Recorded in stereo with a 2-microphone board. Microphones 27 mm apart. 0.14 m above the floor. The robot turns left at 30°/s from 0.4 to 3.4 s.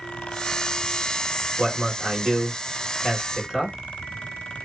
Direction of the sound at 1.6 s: 30° right (ahead or behind).